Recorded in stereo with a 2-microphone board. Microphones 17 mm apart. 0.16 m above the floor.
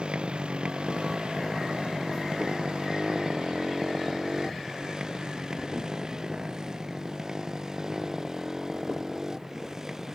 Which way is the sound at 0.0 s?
85° right.